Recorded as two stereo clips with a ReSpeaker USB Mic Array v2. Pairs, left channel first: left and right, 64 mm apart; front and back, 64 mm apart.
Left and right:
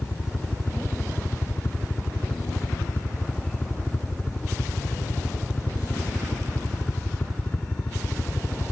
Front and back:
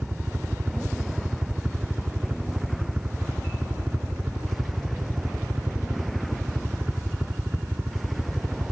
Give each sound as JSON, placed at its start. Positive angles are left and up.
{"t": 0.0, "sound": "a helicopter", "azimuth_deg": 135}